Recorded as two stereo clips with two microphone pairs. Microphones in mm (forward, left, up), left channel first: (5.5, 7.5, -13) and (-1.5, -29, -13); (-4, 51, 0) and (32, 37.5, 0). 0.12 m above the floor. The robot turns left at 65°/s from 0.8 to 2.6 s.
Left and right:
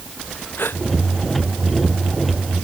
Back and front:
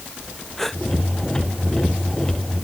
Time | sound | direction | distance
0.6 | a gasp | 75° left | ?